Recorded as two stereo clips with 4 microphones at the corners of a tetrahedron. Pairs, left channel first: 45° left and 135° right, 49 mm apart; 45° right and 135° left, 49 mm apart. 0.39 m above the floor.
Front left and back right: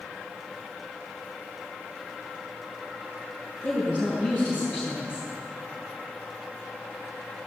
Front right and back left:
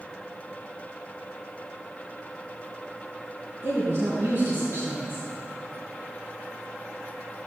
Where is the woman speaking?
160° left, 3.5 m.